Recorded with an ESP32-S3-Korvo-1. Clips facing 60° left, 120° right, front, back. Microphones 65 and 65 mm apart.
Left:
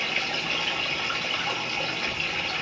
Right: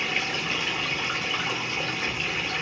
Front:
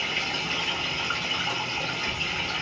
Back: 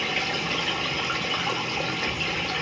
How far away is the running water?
About 1.4 m.